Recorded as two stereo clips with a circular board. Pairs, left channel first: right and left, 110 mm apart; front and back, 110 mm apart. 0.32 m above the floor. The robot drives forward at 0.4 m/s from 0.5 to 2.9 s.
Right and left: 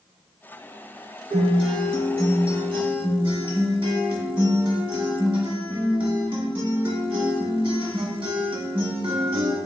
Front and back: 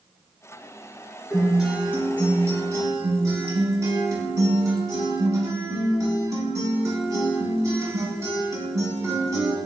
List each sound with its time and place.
1.3 s a guitar: 90° left, 1.0 m; by 9.6 s 120° left, 1.2 m